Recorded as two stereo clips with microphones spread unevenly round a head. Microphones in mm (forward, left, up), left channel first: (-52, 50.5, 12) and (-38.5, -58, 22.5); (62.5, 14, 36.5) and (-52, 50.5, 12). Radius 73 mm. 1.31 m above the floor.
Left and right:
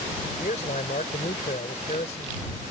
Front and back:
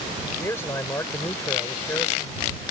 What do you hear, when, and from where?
0.4 s a man speaking: 50° left